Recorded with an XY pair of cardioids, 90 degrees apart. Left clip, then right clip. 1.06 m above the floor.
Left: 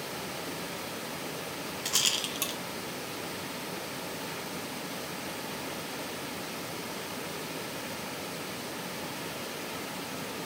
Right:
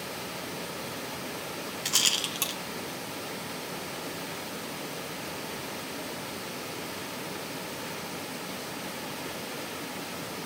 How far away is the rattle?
About 0.9 m.